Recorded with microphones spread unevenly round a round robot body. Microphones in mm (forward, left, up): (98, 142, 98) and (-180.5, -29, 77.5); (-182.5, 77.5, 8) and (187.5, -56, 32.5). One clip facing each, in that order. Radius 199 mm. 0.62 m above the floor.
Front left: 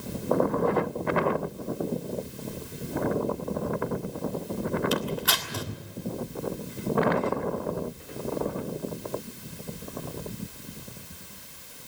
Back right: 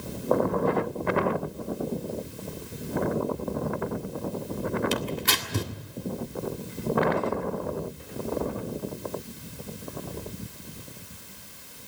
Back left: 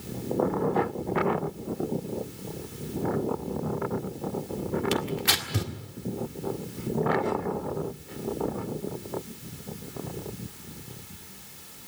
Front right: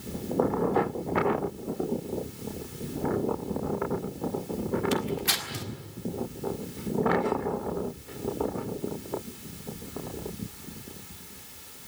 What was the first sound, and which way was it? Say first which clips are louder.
Tearing paper: front left 1 dB, even; 160° left.